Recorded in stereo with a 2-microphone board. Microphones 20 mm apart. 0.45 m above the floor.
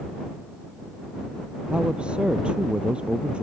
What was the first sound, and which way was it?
A man speaking, 75° right (ahead or behind).